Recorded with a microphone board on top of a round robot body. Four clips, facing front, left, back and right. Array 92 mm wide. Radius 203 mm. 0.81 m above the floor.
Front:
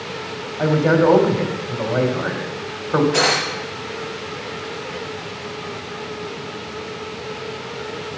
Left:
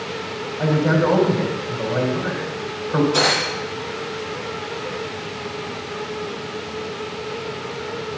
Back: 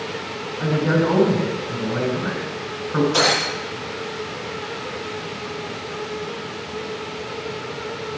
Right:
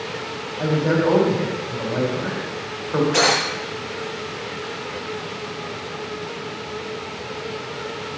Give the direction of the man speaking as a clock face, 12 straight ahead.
12 o'clock.